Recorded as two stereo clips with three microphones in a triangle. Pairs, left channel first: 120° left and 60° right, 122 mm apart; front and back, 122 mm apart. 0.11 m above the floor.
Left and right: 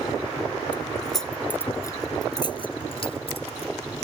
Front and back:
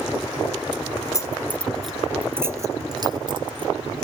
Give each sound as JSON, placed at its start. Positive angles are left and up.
{"t": 0.7, "sound": "keys jangling", "azimuth_deg": 15}